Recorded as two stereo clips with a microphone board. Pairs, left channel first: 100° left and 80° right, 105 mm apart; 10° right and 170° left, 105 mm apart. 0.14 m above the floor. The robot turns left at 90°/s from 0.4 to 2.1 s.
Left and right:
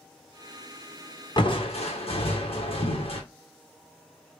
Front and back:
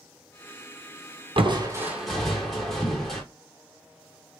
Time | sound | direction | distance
1.4 | crushing | 140° left | 1.2 m